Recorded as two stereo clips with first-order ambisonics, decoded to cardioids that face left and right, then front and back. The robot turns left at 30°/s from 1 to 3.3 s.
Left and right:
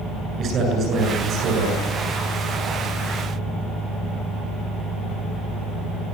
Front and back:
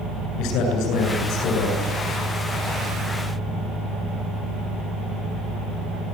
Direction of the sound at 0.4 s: 35° right.